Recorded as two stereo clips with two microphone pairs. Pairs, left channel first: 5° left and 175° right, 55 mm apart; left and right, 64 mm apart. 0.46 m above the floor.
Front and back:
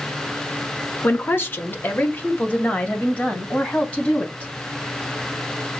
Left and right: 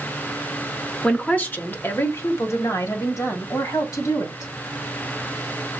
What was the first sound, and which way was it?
A woman speaking, 15° left.